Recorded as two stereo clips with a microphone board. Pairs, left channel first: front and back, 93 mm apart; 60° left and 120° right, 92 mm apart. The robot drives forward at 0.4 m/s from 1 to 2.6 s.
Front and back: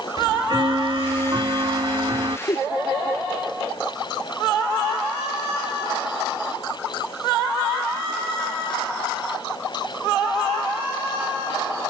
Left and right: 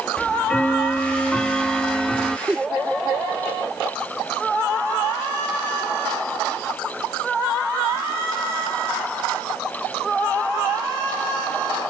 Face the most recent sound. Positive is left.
turn(degrees=-40)